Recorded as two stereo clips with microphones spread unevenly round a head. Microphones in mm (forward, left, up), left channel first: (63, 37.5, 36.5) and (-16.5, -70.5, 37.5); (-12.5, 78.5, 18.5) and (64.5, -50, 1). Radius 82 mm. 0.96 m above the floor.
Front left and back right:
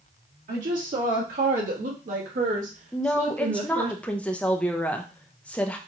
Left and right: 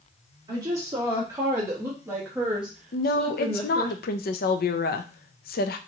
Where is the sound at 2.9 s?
135° left, 0.5 m.